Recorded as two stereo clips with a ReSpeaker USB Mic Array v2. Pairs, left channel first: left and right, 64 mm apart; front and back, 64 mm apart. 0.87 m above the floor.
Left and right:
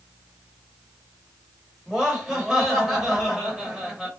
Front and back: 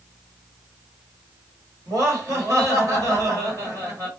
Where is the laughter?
175° right, 1.7 m.